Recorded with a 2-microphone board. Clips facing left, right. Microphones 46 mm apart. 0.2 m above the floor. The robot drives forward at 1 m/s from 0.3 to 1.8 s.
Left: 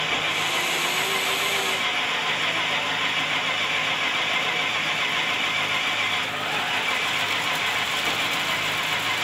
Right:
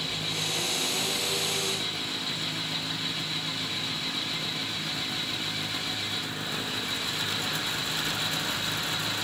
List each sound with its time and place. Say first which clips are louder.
0.0 s an engine running: left 8 dB; 50° left (ahead or behind); by 9.2 s 55° left (ahead or behind)